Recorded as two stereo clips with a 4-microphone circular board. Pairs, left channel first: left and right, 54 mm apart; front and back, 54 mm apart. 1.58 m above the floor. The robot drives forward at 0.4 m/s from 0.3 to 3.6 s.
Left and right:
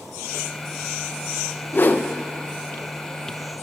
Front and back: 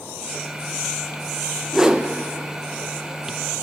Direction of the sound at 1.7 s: 105° left.